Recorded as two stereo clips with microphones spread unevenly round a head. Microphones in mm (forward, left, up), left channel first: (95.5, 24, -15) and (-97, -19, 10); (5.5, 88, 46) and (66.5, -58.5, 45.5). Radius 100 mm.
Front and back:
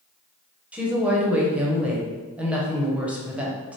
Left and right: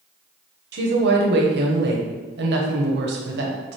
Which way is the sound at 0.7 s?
80° right.